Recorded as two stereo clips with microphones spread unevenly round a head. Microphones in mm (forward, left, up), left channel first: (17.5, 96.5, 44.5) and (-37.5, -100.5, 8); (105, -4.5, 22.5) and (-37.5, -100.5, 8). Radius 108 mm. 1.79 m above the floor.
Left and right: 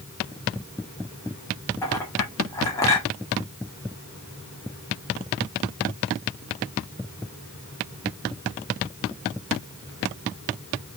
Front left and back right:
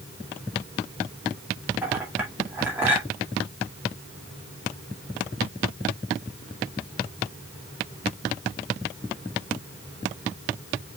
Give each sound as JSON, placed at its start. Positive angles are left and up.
{"t": 1.8, "sound": "a clink", "azimuth_deg": 130, "distance_m": 1.4}